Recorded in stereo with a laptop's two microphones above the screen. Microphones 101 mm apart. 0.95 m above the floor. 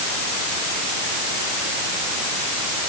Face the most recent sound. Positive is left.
No sound to turn to.